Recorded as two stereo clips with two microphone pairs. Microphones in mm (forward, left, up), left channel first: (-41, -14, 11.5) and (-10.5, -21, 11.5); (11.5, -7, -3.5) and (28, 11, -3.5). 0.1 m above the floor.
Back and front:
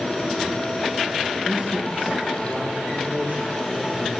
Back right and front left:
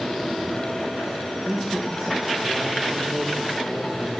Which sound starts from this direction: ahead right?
A man speaking, at 1.4 s.